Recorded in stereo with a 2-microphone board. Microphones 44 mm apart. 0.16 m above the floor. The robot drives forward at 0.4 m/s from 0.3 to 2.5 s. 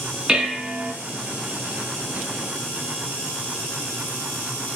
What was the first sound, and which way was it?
Dishes clattering, 15° right (ahead or behind).